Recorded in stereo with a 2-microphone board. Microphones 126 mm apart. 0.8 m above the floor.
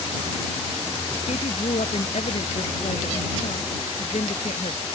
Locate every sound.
1.3 s a woman speaking: 65° left (ahead or behind)